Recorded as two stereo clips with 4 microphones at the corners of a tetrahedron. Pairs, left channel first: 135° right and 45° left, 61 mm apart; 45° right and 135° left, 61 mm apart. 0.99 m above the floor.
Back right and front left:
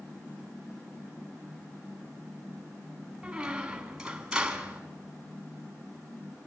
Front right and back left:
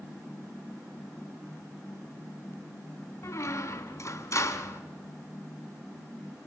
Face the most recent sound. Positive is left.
turn(degrees=-30)